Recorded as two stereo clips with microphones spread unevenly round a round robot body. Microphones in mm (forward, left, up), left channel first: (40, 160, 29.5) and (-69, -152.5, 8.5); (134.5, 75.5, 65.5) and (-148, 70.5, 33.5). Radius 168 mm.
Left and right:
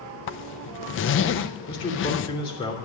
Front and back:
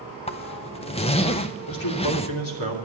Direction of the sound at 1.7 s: 5° right.